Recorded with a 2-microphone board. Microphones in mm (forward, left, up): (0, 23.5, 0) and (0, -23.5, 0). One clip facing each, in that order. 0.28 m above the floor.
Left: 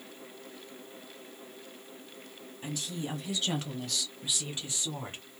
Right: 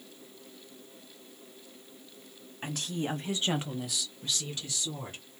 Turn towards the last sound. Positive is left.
turn(degrees=35)  # may be behind; listen again after turning